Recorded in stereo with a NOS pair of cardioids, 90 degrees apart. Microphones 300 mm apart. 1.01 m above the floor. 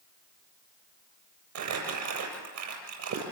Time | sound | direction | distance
1.6 | crumpling | 70° right | 7.5 m